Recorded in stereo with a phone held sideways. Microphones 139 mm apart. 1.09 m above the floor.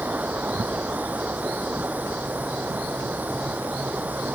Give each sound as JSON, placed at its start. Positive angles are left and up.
{"t": 0.0, "sound": "running water", "side_deg": -10}